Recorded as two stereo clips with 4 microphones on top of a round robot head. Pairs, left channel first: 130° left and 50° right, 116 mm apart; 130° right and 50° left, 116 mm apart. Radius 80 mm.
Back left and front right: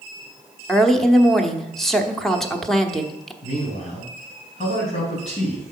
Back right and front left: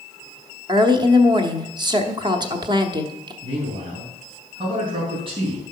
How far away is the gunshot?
I don't hear a gunshot.